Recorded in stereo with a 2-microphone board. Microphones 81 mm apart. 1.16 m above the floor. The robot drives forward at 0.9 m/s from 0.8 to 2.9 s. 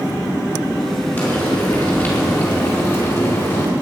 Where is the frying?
25° left (ahead or behind), 6 m; by 3.7 s 30° left (ahead or behind), 5 m.